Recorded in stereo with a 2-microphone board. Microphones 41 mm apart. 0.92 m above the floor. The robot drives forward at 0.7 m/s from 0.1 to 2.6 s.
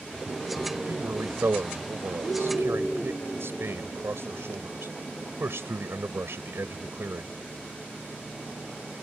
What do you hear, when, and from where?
0.9 s a man speaking: 75° right (ahead or behind); by 7.4 s 80° right